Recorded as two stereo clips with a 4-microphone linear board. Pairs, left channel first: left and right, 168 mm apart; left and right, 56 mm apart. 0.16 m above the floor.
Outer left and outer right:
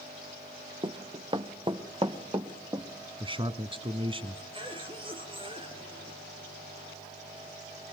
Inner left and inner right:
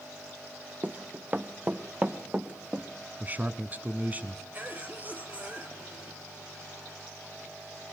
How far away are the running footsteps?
About 1.1 m.